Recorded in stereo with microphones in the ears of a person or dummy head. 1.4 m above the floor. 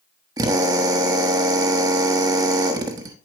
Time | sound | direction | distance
0.4 | a drill | 25° right (ahead or behind) | 1.1 m